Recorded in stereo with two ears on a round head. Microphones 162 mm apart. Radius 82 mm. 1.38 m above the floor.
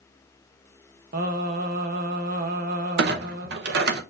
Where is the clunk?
65° right (ahead or behind), 0.8 m.